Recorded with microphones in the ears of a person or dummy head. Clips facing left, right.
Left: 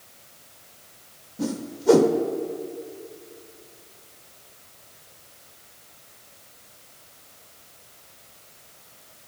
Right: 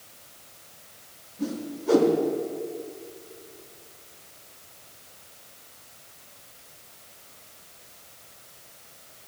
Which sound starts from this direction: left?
A whoosh, at 1.4 s.